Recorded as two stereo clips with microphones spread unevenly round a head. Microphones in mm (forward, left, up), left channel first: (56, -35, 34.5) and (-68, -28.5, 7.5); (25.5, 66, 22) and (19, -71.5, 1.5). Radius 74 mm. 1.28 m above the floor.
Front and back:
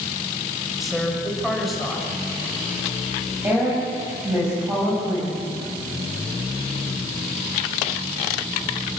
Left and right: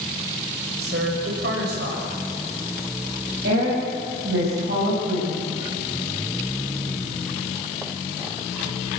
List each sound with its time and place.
0.8 s a woman speaking: 90° right, 6 m
3.4 s a woman speaking: 110° right, 7.5 m